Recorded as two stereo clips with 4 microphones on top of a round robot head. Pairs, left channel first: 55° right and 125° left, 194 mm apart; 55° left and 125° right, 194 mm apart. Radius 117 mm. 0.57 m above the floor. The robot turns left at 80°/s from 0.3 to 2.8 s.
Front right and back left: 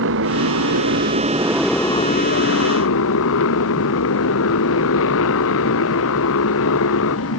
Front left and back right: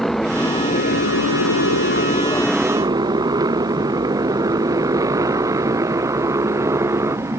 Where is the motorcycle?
145° left; by 7.4 s 50° right.